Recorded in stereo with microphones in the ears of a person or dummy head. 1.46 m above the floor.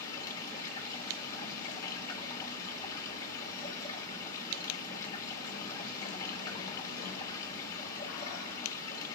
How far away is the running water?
About 2.5 m.